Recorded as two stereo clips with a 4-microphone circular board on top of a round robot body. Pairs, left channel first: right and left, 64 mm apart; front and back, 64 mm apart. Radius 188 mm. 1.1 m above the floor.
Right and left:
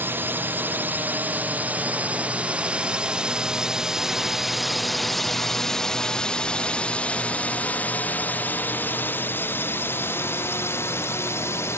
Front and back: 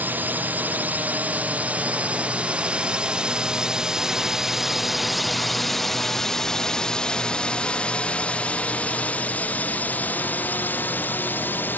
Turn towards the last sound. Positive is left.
turn(degrees=-55)